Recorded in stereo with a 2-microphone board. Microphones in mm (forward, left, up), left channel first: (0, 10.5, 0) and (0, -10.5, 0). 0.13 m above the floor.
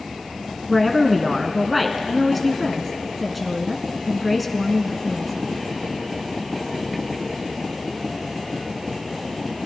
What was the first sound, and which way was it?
A woman speaking, centre (ahead or behind).